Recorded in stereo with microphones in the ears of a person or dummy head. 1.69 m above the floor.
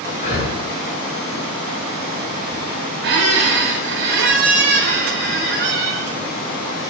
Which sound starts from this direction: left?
Breathing, at 0.2 s.